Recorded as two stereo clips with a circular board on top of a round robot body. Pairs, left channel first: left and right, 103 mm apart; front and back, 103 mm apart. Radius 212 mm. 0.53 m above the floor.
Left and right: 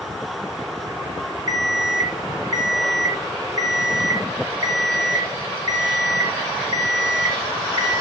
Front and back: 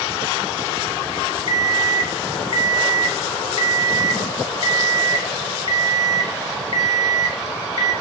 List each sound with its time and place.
1.5 s an alarm clock: 35° right, 7.5 m